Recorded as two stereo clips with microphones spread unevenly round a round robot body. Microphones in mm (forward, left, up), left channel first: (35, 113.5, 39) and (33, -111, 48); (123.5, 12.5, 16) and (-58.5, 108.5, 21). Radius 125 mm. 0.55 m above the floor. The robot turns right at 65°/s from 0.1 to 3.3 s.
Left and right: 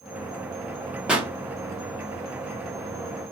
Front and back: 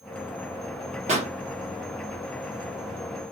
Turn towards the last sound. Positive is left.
turn(degrees=-35)